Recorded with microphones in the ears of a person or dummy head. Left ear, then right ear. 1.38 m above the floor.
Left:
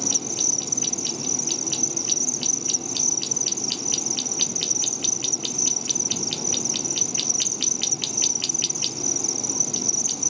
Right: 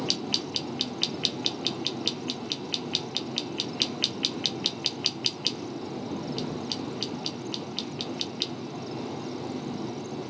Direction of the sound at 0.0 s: 65° left (ahead or behind).